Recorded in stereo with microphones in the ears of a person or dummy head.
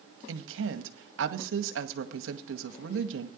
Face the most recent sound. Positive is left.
turn(degrees=-70)  # may be behind; listen again after turning